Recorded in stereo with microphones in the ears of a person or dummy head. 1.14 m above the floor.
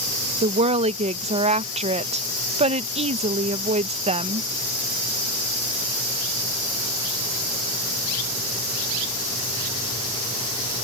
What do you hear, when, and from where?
0.4 s a woman speaking: 25° right (ahead or behind)